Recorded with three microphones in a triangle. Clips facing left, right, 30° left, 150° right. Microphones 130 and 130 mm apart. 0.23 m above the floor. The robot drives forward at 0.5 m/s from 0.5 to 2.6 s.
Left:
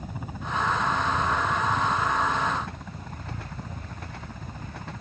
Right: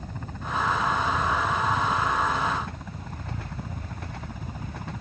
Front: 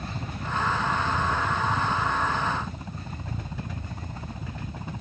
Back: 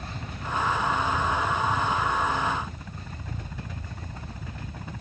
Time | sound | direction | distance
0.0 | a helicopter | 20° left | ?